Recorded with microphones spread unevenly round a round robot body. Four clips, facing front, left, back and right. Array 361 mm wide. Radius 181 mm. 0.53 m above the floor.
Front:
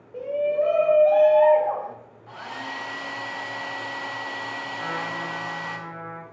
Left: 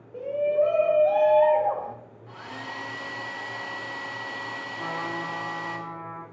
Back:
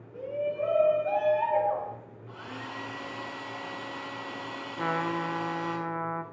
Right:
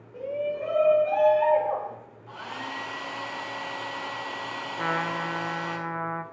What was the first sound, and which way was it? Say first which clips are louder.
A shout: left 6 dB, front 8 dB; 20° left.